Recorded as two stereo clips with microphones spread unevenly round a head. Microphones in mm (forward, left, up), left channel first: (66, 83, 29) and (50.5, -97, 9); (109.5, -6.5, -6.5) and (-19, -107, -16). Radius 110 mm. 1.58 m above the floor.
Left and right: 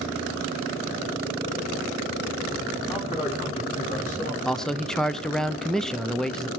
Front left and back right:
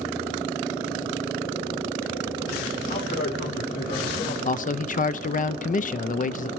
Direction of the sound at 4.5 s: 5° right.